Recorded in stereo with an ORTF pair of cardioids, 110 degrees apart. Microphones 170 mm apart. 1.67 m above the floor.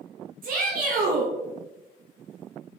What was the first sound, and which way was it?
A shout, 55° right.